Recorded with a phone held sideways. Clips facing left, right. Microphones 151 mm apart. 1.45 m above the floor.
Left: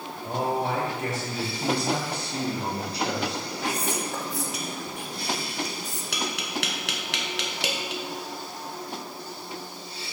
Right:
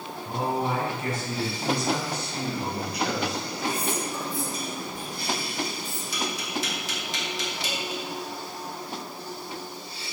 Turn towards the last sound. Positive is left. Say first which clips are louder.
# even
turn(degrees=70)  # may be behind; listen again after turning